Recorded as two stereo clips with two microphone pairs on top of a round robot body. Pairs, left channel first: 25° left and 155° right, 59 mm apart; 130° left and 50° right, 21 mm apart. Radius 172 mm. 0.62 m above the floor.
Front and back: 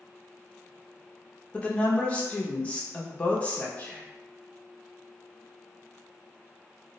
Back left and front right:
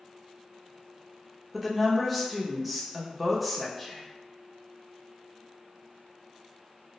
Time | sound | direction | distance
1.5 | a woman speaking | 55° left | 0.7 m
3.8 | whispering | 65° left | 0.6 m